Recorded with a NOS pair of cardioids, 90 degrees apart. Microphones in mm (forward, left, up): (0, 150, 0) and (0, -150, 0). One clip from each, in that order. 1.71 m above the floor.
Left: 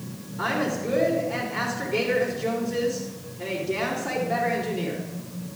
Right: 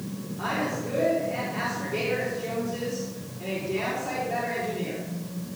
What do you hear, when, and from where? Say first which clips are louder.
0.4 s a woman speaking: left 3 dB; 40° left, 5.5 m